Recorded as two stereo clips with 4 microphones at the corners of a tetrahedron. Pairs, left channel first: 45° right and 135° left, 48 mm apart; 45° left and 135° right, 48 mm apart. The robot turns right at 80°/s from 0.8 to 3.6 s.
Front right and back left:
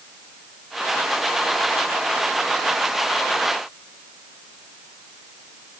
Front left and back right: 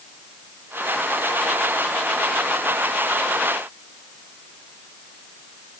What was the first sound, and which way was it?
Only background noise.